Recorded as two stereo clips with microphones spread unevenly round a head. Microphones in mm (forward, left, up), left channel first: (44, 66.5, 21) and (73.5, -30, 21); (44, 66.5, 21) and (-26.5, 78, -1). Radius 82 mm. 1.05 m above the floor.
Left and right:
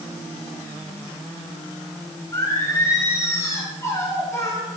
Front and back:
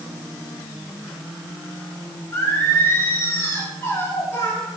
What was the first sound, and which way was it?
Singing, 45° left.